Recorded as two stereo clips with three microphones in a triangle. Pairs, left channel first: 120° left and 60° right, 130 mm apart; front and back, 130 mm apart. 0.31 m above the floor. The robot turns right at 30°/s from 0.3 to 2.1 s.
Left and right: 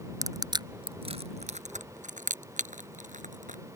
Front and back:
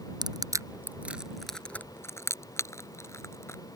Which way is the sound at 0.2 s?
125° right.